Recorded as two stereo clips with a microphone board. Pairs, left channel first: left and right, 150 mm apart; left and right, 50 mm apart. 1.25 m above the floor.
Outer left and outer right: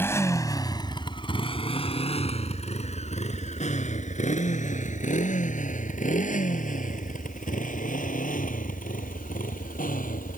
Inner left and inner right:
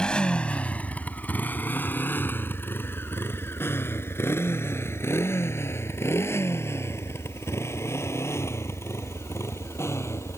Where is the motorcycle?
15° left (ahead or behind); by 10.4 s 65° left (ahead or behind).